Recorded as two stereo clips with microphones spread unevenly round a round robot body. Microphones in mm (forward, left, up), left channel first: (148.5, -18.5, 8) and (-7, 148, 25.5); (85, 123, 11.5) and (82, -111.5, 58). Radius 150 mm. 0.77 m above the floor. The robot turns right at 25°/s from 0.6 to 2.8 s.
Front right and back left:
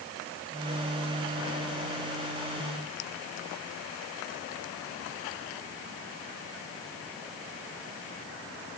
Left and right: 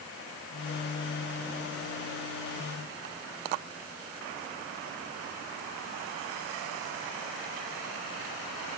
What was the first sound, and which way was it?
Only background noise.